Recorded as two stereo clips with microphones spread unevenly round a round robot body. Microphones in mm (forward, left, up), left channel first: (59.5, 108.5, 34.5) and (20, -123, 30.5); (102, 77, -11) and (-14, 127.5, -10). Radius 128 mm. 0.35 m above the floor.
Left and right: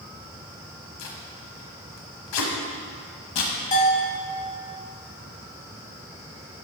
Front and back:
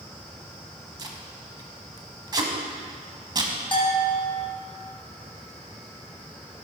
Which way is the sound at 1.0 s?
100° left.